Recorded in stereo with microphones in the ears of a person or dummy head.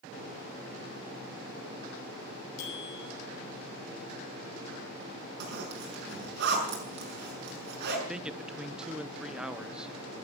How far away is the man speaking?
About 1.0 m.